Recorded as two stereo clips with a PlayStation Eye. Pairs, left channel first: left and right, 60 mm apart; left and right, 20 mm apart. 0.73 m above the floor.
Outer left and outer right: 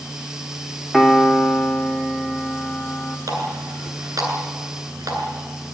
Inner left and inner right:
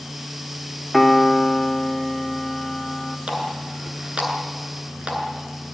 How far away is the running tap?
About 7.5 m.